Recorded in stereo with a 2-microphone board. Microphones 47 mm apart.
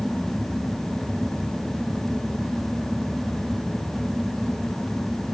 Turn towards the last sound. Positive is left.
No sound to turn to.